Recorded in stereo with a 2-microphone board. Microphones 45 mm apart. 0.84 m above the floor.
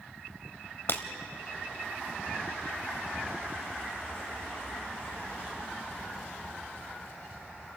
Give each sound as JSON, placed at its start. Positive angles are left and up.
{"t": 0.9, "sound": "breaking glass", "side_deg": 60, "distance_m": 1.2}